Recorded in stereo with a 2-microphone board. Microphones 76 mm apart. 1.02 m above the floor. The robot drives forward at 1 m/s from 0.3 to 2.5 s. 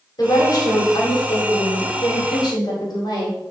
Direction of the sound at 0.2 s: 55° left (ahead or behind).